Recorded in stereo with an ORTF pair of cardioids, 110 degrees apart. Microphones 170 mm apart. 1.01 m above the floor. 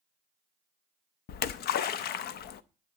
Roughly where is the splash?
Ahead left.